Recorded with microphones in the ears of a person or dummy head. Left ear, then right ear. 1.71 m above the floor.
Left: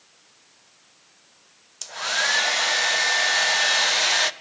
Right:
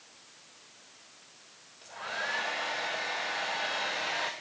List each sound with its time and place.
1.8 s a hair dryer: 85° left, 0.8 m